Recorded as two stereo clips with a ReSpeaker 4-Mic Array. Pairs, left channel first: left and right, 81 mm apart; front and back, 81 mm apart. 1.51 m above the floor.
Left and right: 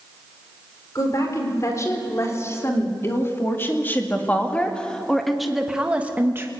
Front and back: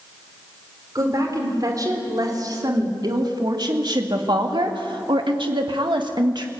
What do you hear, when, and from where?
0.9 s a woman speaking: 135° left, 4.5 m; by 6.5 s 150° right, 1.5 m